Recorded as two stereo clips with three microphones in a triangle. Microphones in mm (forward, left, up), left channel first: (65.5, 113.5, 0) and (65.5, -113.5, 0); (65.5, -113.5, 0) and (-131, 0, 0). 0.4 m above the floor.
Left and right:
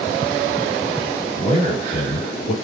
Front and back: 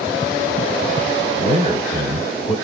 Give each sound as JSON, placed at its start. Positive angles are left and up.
{"t": 1.4, "sound": "a man speaking", "azimuth_deg": 110, "distance_m": 1.8}